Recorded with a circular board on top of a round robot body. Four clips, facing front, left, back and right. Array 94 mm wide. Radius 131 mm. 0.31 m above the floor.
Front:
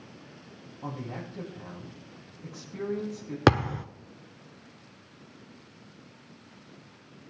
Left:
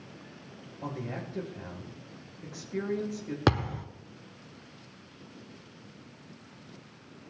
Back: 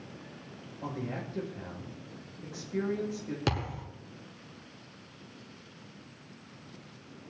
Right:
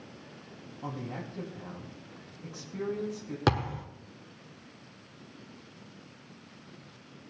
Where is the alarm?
No alarm in this recording.